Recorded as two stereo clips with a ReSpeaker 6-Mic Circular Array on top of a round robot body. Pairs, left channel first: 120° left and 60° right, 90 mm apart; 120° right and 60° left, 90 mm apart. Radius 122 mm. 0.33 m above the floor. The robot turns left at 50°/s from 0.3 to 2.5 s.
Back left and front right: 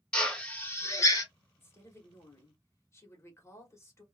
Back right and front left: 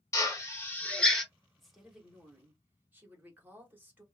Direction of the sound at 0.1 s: 165° right.